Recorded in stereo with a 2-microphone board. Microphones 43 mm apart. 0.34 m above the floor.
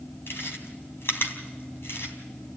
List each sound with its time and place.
0.3 s chewing: 65° left (ahead or behind), 3 m